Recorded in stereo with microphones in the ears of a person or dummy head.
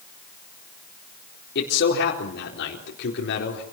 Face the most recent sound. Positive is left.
turn(degrees=60)  # may be behind; listen again after turning